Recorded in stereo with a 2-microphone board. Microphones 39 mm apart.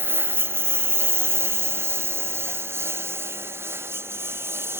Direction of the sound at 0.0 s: 65° right (ahead or behind).